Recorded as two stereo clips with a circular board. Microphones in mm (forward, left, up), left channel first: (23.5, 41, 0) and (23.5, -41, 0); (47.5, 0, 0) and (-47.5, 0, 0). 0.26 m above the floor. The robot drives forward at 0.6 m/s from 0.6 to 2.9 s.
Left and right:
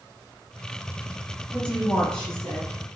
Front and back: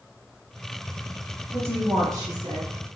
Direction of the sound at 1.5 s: 145° left.